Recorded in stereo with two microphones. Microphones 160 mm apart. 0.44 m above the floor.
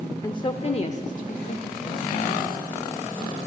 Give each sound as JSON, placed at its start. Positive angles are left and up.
{"t": 0.2, "sound": "a woman speaking", "side_deg": 20, "distance_m": 0.8}